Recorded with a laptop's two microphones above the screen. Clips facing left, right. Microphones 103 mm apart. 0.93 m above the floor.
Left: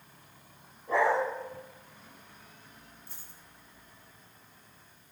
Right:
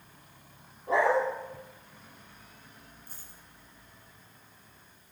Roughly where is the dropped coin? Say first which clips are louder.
Right 1 dB; right.